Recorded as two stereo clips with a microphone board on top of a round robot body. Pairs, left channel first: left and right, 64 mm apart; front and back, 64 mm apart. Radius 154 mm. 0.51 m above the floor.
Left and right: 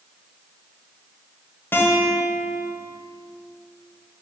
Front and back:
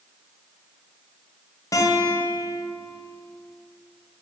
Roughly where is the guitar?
Ahead left.